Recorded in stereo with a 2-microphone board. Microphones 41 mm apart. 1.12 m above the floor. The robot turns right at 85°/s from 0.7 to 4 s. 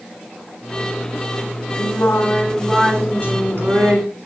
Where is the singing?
105° left, 3 m; by 4.1 s 65° right, 3 m.